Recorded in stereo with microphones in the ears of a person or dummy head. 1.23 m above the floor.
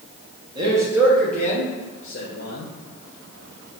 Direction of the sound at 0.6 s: 25° right (ahead or behind).